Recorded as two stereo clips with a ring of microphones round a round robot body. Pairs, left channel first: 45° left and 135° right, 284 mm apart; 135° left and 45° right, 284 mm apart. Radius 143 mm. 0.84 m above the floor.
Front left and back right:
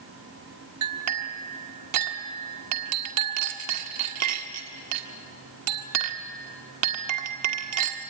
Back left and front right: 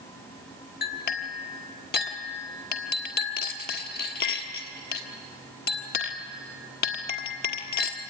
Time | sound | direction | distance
0.8 | a clink | 170° right | 1.5 m